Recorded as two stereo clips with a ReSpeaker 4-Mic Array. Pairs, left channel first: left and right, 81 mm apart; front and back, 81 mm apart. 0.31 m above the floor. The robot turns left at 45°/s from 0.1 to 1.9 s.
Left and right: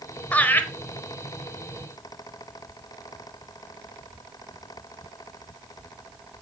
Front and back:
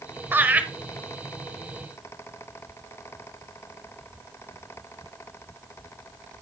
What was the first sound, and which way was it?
Laughter, 145° left.